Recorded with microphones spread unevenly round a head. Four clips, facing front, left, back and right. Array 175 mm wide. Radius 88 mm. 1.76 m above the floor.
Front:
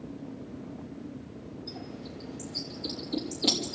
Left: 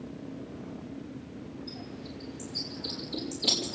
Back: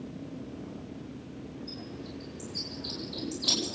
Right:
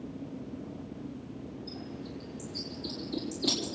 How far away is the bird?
About 5.5 m.